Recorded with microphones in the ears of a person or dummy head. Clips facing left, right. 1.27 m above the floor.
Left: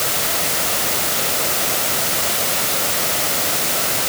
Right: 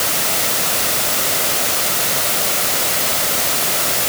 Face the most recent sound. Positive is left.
No sound to turn to.